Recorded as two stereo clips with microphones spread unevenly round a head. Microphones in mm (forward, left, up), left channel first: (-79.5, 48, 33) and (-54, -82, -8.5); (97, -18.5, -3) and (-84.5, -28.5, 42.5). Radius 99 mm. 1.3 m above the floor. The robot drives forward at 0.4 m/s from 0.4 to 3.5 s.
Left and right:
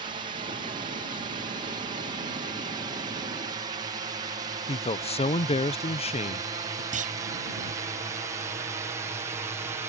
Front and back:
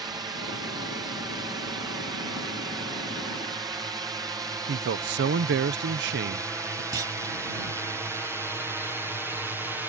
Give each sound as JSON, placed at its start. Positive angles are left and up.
{"t": 0.0, "sound": "a drone", "azimuth_deg": -100}
{"t": 4.7, "sound": "a man speaking", "azimuth_deg": 155}
{"t": 6.9, "sound": "a clunk", "azimuth_deg": -115}